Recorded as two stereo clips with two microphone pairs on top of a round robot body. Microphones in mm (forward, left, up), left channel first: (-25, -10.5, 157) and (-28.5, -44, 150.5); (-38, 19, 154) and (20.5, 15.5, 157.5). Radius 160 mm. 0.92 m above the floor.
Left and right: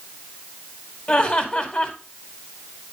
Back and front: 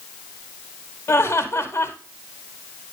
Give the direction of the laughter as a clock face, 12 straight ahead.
8 o'clock.